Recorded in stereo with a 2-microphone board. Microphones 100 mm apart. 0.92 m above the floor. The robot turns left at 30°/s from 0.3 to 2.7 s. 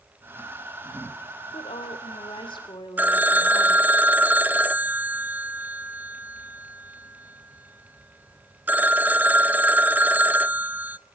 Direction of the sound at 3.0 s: 20° right (ahead or behind).